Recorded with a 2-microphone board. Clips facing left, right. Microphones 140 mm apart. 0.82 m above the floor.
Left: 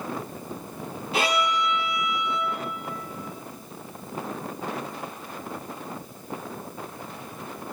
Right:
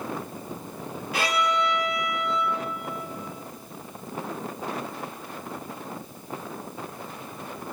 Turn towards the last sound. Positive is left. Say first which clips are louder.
# left 1 dB
turn(degrees=25)  # may be behind; listen again after turning